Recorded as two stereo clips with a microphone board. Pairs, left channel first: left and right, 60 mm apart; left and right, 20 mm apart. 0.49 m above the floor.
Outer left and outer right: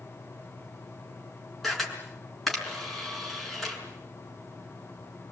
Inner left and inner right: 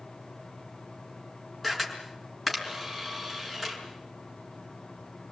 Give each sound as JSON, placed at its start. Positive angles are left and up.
{"t": 1.6, "sound": "a camera shutter", "side_deg": 0, "distance_m": 6.0}